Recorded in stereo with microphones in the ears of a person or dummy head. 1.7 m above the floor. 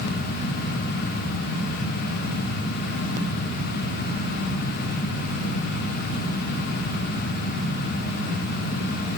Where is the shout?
I don't hear a shout.